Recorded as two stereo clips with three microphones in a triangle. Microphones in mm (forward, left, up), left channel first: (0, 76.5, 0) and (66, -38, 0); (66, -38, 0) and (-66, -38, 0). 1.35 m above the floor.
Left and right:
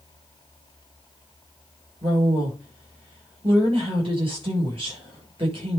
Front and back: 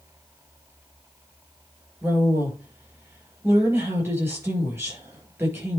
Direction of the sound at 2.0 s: 110° right.